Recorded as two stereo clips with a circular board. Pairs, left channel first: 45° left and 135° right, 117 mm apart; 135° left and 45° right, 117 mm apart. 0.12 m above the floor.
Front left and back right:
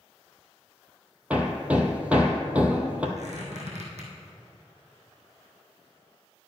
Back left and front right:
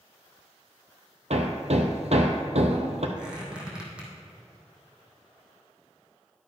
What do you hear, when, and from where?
1.3 s hammering: 55° right, 1.1 m
3.2 s a squeak: 125° right, 2.5 m